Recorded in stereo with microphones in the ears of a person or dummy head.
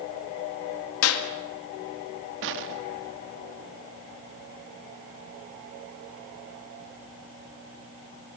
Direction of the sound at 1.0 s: 90° left.